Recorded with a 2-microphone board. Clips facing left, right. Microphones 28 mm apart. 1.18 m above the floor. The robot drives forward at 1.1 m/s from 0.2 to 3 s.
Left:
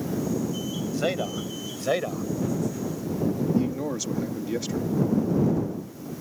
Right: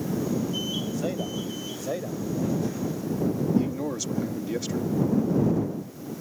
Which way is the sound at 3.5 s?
Centre (ahead or behind).